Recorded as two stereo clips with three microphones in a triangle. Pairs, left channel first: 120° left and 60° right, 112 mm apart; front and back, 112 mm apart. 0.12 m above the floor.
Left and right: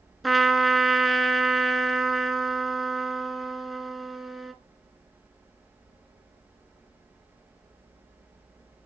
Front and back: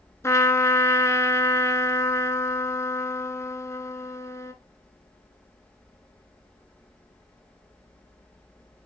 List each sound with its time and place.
0.2 s a trumpet: 30° left, 0.7 m